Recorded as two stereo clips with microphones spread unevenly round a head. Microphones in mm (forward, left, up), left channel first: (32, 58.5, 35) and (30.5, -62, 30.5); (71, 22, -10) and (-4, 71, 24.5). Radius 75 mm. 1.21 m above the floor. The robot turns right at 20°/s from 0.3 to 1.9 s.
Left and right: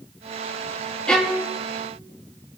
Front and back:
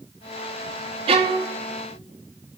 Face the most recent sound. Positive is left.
turn(degrees=-170)